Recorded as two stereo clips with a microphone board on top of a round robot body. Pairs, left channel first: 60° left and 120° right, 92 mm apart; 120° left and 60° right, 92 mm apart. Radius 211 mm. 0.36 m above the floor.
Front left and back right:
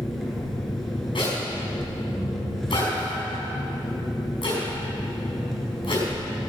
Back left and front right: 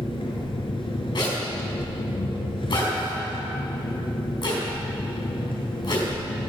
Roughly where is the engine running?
Behind left.